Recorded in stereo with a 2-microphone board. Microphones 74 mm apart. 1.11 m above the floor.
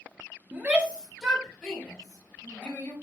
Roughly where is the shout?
Right.